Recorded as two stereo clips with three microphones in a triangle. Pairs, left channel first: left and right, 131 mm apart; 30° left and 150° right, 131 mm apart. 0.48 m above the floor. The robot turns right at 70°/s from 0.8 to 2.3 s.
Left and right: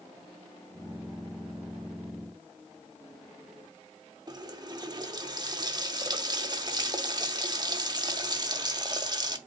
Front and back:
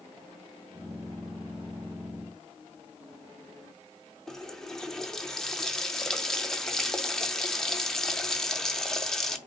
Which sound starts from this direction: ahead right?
A running tap, at 4.3 s.